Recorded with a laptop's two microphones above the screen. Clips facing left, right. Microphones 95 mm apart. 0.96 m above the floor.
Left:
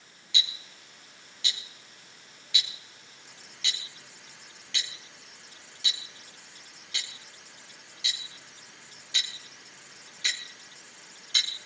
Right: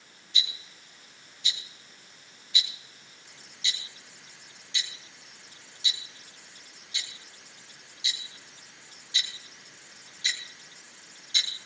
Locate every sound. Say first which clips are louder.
0.3 s ticking: left 1 dB; 90° left, 5 m